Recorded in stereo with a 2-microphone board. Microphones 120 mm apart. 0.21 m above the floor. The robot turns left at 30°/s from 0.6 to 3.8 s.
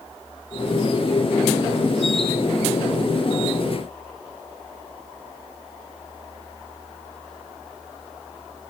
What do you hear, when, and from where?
Only background noise.